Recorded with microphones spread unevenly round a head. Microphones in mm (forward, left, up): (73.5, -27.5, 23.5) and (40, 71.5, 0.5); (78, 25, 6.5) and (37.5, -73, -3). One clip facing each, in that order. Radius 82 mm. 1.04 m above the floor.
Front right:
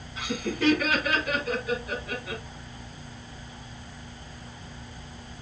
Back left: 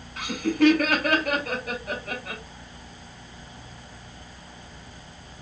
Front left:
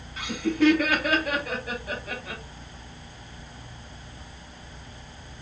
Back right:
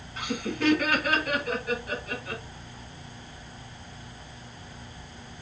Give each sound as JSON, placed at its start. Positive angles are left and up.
{"t": 0.2, "sound": "laughter", "azimuth_deg": 90, "distance_m": 3.0}